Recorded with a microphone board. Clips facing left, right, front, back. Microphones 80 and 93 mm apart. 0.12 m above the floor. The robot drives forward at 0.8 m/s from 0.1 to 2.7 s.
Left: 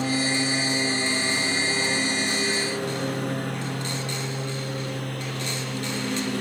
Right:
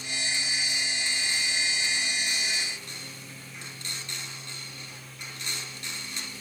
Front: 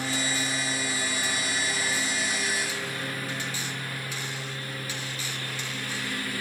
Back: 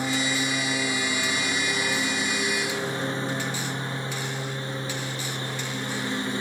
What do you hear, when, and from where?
0.0 s a lawn mower: 110° left; by 6.4 s 115° left